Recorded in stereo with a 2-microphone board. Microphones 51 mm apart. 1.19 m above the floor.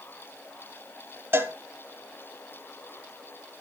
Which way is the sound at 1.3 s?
40° right (ahead or behind).